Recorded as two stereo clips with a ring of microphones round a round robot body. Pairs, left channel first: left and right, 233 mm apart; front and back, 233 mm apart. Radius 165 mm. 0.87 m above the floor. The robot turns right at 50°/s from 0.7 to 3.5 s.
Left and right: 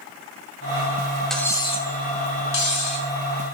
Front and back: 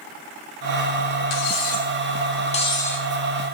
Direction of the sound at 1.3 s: Straight ahead.